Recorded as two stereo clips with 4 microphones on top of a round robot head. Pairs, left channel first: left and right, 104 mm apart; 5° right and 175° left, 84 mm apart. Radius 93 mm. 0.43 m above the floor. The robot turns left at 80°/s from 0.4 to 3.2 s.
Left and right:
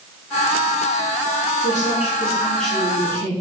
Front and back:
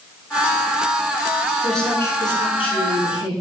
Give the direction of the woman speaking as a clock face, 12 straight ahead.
9 o'clock.